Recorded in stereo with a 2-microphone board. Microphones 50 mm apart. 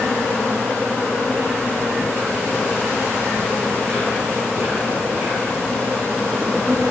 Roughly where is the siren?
No siren in this recording.